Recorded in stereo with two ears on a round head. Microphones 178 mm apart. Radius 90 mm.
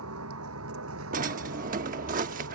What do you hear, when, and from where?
0.0 s a vehicle: 85° right; by 2.5 s 75° right (ahead or behind)
1.1 s a drawer: 45° right (ahead or behind)